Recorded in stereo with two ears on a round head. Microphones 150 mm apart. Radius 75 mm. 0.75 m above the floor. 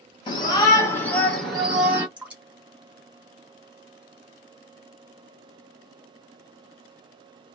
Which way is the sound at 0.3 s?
30° left (ahead or behind).